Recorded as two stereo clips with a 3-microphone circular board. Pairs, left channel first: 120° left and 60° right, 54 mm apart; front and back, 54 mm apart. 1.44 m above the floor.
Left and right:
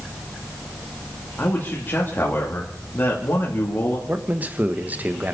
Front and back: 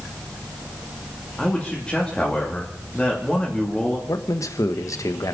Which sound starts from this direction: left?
A man speaking, at 1.4 s.